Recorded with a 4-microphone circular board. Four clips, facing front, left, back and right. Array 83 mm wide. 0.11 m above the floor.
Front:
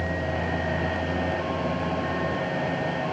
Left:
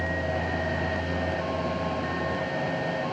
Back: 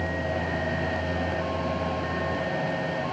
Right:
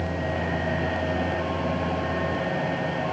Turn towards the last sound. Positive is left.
No sound to turn to.